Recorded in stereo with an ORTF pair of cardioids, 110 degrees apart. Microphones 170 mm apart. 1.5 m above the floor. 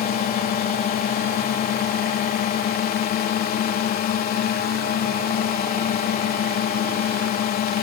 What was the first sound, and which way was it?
A drone, 65° left.